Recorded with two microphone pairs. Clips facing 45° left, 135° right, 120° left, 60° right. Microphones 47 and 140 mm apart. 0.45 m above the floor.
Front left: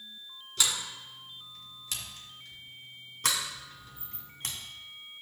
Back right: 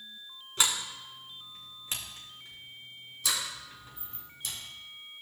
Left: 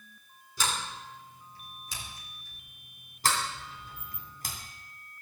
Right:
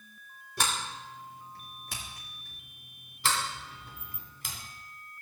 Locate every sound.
0.6 s a sliding door: 75° right, 2.5 m
3.2 s a sliding door: 75° left, 2.5 m